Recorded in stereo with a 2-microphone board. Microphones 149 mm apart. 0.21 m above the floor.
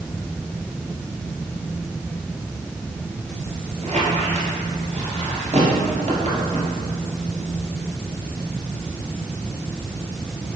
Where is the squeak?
50° right (ahead or behind), 2.0 m.